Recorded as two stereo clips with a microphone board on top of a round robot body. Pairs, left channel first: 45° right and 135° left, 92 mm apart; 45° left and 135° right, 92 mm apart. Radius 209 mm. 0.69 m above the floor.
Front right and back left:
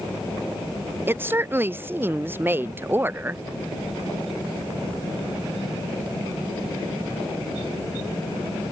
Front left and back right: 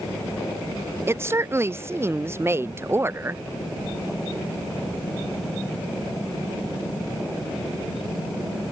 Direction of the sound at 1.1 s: 175° right.